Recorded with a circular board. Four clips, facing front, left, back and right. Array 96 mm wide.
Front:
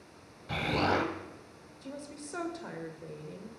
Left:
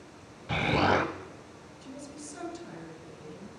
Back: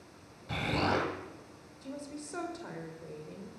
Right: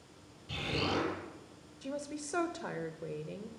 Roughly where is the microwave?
I don't hear a microwave.